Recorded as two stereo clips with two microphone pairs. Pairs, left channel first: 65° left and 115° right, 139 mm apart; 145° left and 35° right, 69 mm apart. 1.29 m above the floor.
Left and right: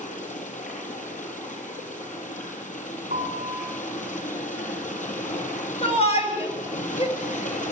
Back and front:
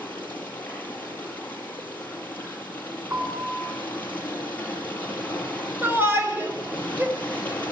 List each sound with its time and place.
0.0 s running water: 80° left, 5.5 m
3.1 s a piano: 90° right, 6.5 m
5.8 s a shout: 25° left, 6.5 m